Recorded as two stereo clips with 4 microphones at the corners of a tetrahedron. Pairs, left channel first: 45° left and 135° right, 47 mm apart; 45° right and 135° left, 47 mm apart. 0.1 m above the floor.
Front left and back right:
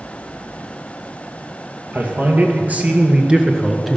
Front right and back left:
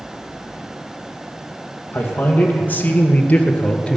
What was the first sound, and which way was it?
A man speaking, 90° right.